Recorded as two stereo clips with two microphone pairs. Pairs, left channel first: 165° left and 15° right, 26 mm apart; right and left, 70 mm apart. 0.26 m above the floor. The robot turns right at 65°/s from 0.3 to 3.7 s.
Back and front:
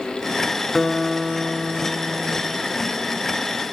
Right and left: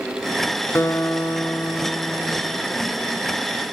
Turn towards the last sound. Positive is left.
turn(degrees=75)